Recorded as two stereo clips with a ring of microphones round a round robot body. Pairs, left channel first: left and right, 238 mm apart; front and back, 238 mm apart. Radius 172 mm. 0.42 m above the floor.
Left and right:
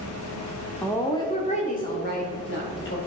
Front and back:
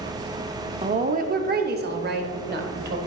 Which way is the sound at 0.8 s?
170° left.